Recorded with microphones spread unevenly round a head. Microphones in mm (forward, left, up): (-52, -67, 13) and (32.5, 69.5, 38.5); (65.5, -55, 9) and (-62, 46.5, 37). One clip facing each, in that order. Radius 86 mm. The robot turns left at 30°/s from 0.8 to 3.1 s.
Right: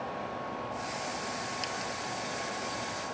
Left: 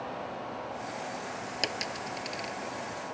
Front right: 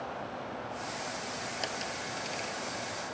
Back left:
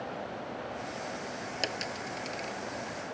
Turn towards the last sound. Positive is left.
turn(degrees=35)